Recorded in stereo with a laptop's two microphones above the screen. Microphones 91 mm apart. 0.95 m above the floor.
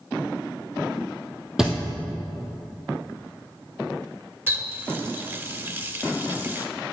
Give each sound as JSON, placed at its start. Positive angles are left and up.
{"t": 1.6, "sound": "a thud", "side_deg": -5, "distance_m": 2.0}
{"t": 4.5, "sound": "a running tap", "side_deg": -25, "distance_m": 1.5}